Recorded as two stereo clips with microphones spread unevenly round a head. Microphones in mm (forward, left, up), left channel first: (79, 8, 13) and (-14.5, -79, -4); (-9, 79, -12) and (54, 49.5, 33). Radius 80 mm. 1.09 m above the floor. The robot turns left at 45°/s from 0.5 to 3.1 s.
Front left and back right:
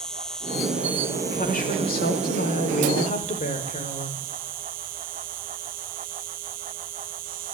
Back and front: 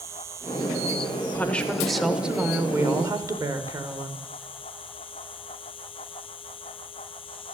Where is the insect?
40° right, 0.8 m; by 7.5 s 155° right, 0.8 m.